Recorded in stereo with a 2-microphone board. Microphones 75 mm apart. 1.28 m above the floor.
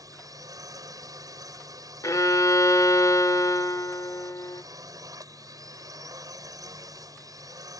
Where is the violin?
55° left (ahead or behind).